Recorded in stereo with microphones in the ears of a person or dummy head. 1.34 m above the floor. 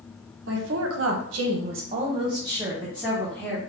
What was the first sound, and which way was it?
A woman speaking, 65° right (ahead or behind).